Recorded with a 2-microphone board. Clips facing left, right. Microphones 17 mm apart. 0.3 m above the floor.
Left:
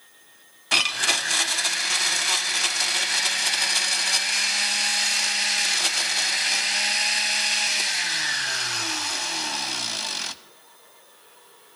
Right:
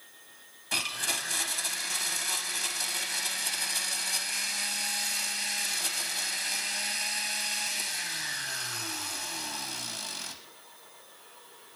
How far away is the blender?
About 0.6 m.